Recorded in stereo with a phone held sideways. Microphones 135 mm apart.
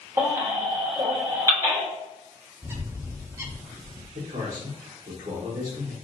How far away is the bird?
About 0.5 m.